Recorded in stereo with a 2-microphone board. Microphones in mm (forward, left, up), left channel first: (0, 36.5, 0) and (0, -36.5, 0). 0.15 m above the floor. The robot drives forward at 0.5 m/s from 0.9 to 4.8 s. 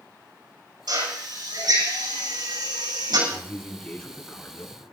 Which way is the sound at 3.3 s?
15° left (ahead or behind).